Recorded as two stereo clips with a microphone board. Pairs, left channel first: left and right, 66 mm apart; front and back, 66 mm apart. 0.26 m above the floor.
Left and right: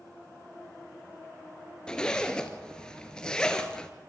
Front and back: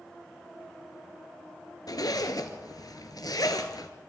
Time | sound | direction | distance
1.9 | a zipper | 15° left | 1.6 m